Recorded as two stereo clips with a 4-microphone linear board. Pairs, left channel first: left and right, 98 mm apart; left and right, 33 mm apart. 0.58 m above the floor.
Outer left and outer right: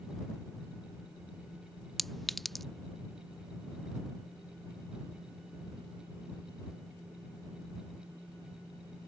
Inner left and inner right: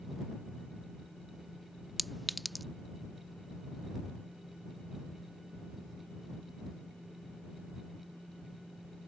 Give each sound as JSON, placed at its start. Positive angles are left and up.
{"t": 2.0, "sound": "a clink", "side_deg": 0}